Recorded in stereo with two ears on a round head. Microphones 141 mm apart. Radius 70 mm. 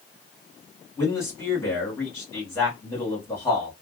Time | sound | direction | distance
1.0 | a man speaking | 15° left (ahead or behind) | 1.5 m